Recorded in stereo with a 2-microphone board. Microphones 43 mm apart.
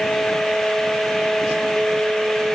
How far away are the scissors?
I don't hear scissors.